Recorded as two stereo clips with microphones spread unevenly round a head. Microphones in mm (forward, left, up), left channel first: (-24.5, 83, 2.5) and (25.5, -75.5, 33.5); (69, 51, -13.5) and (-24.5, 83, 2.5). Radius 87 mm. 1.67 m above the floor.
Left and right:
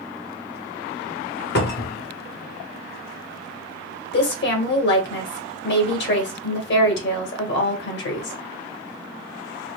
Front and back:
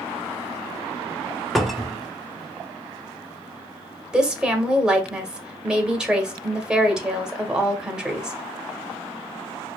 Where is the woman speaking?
80° left, 1.2 m.